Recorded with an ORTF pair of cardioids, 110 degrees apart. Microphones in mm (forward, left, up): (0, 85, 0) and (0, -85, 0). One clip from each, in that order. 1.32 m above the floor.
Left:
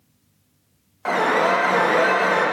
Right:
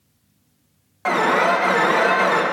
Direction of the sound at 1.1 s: 20° right.